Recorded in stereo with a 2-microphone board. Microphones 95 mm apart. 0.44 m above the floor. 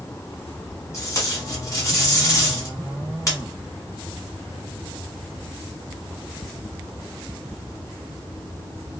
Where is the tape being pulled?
35° left (ahead or behind), 1.3 m.